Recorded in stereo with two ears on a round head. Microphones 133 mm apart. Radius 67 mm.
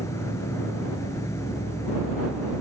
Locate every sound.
0.0 s an insect: 20° left (ahead or behind)